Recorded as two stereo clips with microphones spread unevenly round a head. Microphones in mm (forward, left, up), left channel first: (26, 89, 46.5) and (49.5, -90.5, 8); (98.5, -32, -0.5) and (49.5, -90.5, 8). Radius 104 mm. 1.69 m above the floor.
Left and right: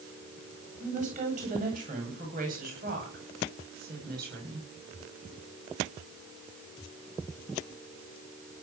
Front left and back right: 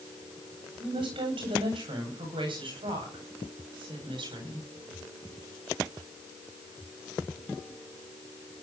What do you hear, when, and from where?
0.8 s a woman speaking: 140° right, 10 m; by 4.7 s 130° right, 10.5 m